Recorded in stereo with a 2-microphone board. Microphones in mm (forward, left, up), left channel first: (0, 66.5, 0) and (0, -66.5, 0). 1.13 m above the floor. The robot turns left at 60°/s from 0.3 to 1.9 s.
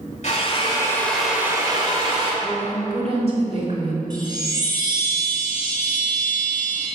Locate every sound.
0.2 s a drill: 55° left, 2 m; by 2.3 s 40° right, 2 m
2.4 s a woman speaking: 45° right (ahead or behind), 3 m
4.1 s a chime: 30° right (ahead or behind), 3 m